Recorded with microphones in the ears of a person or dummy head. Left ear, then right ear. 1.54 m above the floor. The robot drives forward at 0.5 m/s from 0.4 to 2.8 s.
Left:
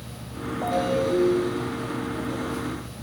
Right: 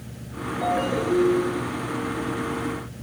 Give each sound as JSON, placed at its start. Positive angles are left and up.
{"t": 0.6, "sound": "a ringtone", "side_deg": -50, "distance_m": 4.0}